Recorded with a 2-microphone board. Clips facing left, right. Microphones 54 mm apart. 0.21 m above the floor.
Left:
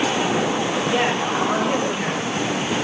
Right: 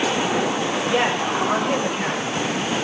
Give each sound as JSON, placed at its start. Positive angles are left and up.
{"t": 0.9, "sound": "a woman speaking", "side_deg": -5, "distance_m": 7.0}